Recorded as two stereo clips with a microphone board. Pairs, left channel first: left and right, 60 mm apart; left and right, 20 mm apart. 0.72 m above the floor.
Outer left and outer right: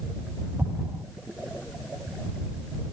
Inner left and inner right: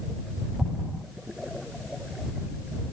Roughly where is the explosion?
Right.